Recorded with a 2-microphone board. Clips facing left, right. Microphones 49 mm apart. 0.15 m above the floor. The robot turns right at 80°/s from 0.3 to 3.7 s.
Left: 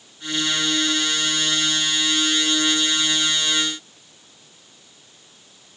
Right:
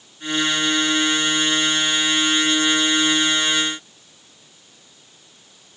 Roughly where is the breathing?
No breathing in this recording.